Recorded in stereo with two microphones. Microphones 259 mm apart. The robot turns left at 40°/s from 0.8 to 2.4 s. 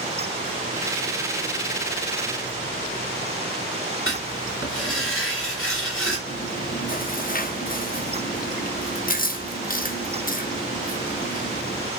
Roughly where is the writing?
Left.